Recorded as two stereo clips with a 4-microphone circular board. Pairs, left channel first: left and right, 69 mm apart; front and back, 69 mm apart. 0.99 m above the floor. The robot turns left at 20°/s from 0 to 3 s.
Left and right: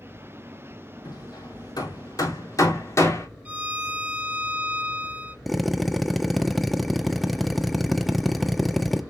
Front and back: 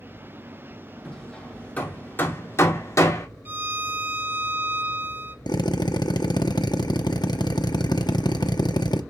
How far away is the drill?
About 0.8 m.